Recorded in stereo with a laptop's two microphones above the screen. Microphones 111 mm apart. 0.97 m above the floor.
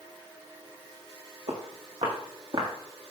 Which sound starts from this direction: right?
Footsteps, at 1.5 s.